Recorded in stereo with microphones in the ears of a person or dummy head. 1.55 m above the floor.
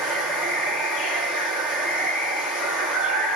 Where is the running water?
Centre (ahead or behind), 2.5 m.